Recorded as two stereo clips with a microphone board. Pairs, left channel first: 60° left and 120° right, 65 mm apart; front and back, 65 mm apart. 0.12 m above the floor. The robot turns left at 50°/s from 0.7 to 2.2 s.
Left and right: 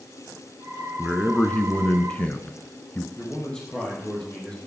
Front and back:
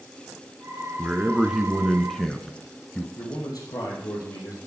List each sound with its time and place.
1.0 s a man speaking: 130° left, 1.3 m; by 3.1 s 70° left, 1.3 m
3.2 s a man speaking: 15° right, 3.5 m